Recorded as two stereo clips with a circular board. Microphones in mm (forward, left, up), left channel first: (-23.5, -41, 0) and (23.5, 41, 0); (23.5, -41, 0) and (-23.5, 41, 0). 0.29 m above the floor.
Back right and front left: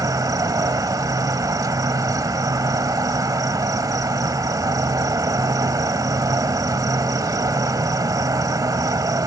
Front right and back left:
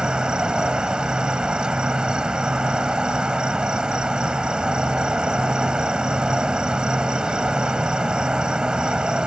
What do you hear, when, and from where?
0.0 s an insect: 45° left